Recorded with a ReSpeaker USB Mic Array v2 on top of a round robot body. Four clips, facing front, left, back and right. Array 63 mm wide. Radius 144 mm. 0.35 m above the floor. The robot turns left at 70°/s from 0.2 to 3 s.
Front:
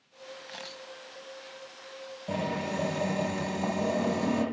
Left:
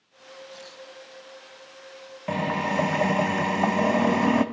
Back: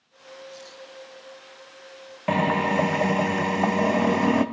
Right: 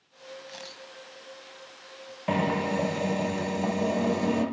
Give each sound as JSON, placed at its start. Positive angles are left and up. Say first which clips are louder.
{"t": 0.5, "sound": "a camera shutter", "louder": "left 1 dB, back 1 dB", "azimuth_deg": -15, "distance_m": 2.5}
{"t": 2.3, "sound": "a drill", "louder": "even, back 10 dB", "azimuth_deg": -175, "distance_m": 1.5}